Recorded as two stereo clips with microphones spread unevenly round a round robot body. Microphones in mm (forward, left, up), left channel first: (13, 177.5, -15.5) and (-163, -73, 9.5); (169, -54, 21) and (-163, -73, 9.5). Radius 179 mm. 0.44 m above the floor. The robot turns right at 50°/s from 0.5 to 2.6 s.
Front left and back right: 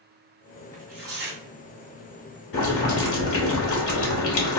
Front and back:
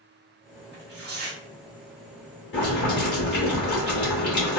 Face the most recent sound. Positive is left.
turn(degrees=55)